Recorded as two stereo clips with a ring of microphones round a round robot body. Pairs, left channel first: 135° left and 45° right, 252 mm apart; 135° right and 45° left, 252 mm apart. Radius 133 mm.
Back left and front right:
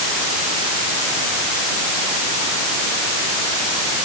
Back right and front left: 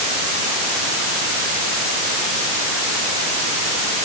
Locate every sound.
Only background noise.